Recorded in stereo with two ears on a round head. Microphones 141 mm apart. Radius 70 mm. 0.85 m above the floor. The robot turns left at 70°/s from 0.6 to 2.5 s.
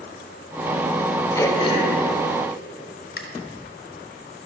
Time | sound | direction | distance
1.4 | throat clearing | 15° left (ahead or behind) | 1.1 m